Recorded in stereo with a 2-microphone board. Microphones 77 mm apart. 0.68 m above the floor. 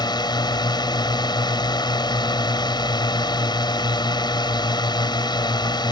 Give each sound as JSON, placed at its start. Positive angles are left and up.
{"t": 0.0, "sound": "a drone", "side_deg": 65}